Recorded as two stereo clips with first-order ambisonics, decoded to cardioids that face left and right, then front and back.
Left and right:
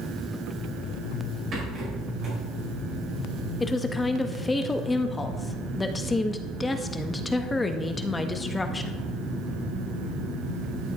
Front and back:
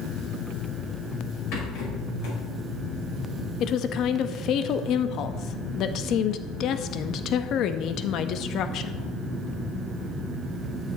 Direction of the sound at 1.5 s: 30° right.